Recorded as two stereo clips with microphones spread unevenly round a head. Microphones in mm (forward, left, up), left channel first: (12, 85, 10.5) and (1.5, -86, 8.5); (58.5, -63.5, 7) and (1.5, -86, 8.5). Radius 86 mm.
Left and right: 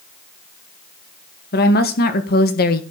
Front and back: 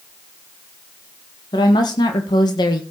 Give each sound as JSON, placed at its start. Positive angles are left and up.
{"t": 1.5, "sound": "a woman speaking", "azimuth_deg": 50, "distance_m": 2.5}